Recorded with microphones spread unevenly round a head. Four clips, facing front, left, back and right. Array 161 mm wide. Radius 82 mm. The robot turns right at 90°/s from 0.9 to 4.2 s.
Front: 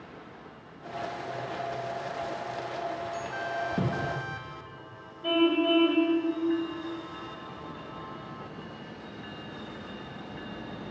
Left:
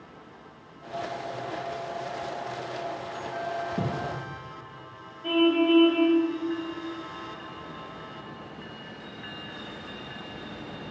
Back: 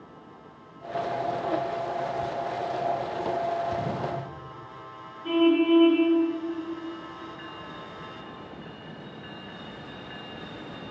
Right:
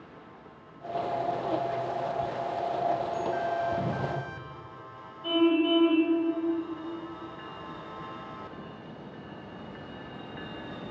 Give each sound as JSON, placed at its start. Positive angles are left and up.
{"t": 3.8, "sound": "a thud", "azimuth_deg": 20, "distance_m": 9.0}
{"t": 5.2, "sound": "a car horn", "azimuth_deg": 10, "distance_m": 4.5}